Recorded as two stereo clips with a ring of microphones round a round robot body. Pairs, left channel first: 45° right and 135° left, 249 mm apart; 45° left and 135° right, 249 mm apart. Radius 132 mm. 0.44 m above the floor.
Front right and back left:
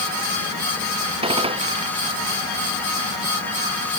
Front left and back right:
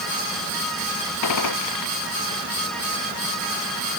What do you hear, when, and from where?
1.2 s a gunshot: 65° left